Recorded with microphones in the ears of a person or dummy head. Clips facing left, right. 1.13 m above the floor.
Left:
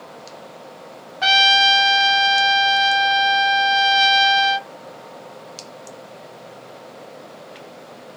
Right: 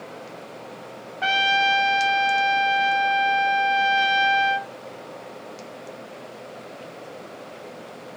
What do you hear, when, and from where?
1.2 s a trumpet: 60° left (ahead or behind), 0.8 m